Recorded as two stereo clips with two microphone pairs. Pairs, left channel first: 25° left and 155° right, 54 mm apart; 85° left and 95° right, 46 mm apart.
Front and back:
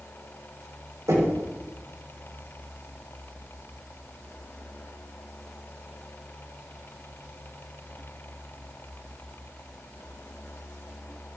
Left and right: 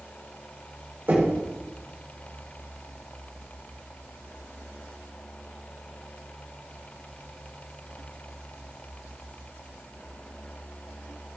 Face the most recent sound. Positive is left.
turn(degrees=-150)